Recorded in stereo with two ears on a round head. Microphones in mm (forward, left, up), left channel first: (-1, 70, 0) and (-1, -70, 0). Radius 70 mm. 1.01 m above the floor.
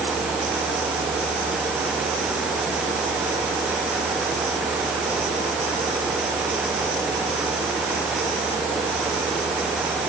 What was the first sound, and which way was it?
Only background noise.